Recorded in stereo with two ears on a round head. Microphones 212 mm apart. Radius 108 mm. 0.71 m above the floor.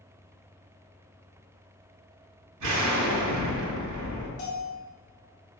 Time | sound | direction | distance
2.6 | an explosion | 80° right | 2 m
4.4 | a bell | 35° left (ahead or behind) | 2 m